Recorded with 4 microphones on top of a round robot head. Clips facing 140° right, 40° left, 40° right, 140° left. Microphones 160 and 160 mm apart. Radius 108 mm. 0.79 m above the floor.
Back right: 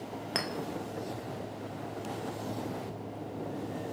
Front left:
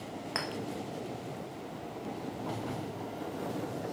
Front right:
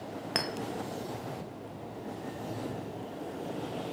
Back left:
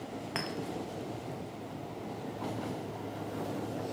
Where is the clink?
85° right, 0.5 m.